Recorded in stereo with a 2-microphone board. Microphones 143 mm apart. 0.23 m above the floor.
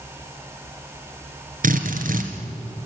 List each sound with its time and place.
1.6 s a drill: 70° right (ahead or behind), 2.5 m